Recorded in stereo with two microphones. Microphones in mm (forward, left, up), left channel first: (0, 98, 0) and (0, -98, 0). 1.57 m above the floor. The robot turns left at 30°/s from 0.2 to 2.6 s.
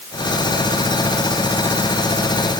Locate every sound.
Only background noise.